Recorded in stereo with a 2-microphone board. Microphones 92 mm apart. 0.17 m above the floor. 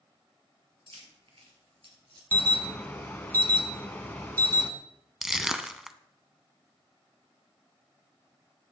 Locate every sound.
0.9 s keys jangling: 70° right (ahead or behind), 2.5 m; by 2.2 s 55° right (ahead or behind), 2.0 m
2.3 s an alarm: 20° left (ahead or behind), 1.1 m
5.2 s crushing: 5° right (ahead or behind), 0.5 m